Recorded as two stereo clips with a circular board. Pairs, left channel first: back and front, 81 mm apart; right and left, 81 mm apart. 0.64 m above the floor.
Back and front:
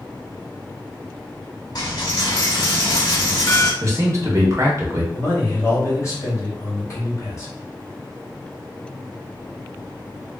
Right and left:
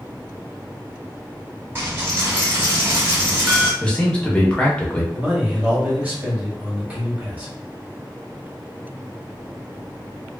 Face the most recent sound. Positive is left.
turn(degrees=155)